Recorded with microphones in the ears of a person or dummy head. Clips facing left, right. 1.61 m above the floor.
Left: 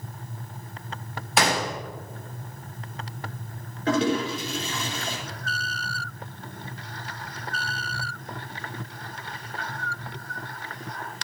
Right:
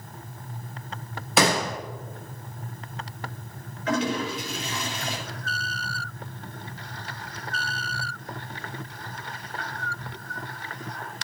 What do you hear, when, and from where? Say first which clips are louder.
1.4 s a gunshot: right 2 dB; 70° right (ahead or behind), 1.3 m
3.9 s a toilet flushing: left 3 dB; 30° left (ahead or behind), 5 m